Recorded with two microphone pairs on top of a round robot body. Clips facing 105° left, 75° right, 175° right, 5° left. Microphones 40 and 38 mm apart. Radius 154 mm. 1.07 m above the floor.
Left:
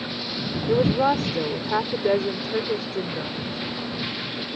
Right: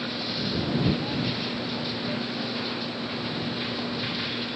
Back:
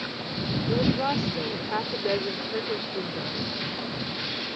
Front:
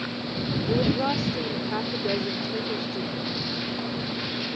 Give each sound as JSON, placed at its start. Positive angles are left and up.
{"t": 0.7, "sound": "a woman speaking", "azimuth_deg": 95}